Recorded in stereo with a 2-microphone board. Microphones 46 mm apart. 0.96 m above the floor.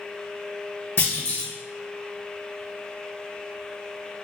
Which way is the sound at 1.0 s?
70° left (ahead or behind).